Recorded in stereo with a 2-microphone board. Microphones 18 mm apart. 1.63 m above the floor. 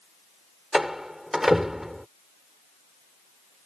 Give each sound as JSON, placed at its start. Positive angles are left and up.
{"t": 0.7, "sound": "a door slam", "side_deg": -20}